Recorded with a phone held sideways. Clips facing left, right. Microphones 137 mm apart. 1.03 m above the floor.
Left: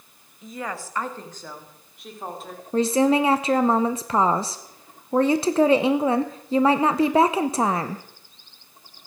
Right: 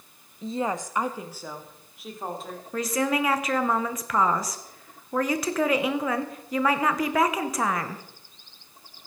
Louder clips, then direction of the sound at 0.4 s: Right 5 dB; 35° right (ahead or behind).